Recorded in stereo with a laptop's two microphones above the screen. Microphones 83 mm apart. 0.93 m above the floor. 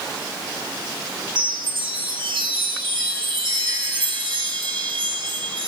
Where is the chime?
65° right (ahead or behind), 1.0 m.